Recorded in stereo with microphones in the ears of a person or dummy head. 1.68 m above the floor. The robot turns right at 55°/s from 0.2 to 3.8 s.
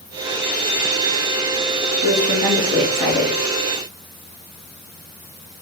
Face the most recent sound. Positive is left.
turn(degrees=55)